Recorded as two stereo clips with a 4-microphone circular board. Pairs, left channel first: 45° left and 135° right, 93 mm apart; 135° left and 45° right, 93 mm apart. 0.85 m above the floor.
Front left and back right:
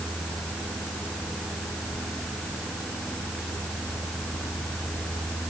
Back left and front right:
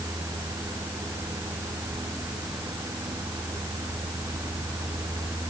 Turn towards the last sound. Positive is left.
No sound to turn to.